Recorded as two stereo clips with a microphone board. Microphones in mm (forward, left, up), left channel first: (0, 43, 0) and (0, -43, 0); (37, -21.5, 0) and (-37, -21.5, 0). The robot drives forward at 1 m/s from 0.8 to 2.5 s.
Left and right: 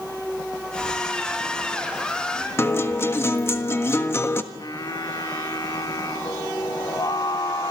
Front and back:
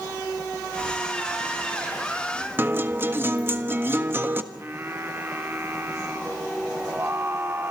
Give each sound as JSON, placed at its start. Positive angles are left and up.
{"t": 0.8, "sound": "keys jangling", "azimuth_deg": 125, "distance_m": 8.5}
{"t": 2.6, "sound": "a guitar", "azimuth_deg": 135, "distance_m": 1.4}
{"t": 4.5, "sound": "singing", "azimuth_deg": 125, "distance_m": 2.5}